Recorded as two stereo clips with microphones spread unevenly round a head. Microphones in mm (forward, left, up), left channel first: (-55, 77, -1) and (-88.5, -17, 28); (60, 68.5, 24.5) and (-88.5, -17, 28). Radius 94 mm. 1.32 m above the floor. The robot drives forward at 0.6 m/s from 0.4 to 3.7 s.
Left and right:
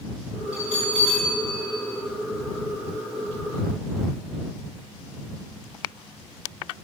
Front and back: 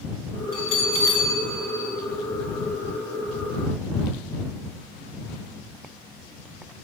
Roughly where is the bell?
Ahead right.